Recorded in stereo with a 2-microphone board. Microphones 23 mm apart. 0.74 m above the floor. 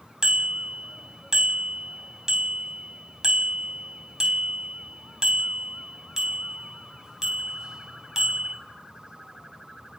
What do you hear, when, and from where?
0.2 s a bicycle bell: 30° right (ahead or behind), 4 m